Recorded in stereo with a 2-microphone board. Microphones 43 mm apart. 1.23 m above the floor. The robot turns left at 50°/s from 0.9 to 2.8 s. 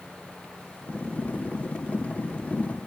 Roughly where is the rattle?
No rattle in this recording.